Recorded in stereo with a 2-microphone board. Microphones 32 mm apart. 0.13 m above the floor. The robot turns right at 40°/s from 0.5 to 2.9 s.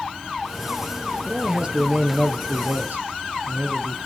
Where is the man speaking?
155° right, 2.5 m; by 4.1 s 90° right, 2.5 m.